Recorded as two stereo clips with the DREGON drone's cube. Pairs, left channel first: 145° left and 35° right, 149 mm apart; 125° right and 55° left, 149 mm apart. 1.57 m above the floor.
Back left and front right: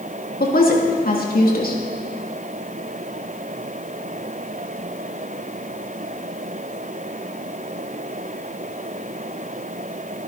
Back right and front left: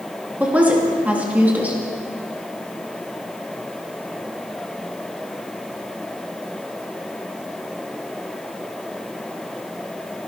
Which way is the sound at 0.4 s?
135° left.